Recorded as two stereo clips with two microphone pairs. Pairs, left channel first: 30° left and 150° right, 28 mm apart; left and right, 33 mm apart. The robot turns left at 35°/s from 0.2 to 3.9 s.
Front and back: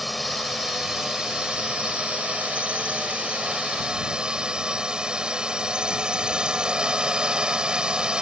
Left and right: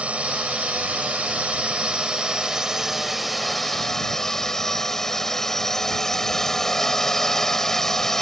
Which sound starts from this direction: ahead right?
A drone, at 0.0 s.